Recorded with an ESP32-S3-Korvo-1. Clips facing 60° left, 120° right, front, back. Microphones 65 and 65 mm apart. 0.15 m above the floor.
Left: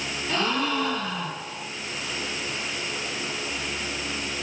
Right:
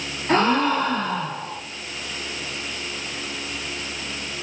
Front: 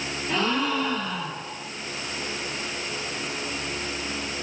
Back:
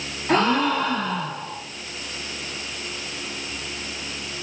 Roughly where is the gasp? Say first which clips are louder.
Right 7 dB, back 6 dB; behind right.